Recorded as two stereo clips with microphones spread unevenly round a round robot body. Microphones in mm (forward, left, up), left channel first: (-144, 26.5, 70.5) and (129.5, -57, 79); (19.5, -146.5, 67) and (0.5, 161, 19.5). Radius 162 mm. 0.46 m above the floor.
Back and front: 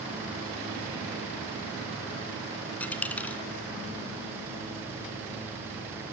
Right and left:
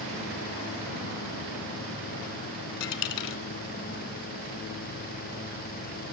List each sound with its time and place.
2.8 s a dropped coin: 110° right, 2.5 m